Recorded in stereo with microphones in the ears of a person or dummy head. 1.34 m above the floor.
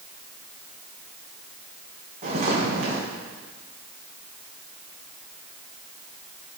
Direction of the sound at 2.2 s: 50° right (ahead or behind).